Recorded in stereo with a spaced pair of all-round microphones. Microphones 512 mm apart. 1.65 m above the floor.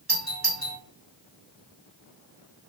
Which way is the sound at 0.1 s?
45° right (ahead or behind).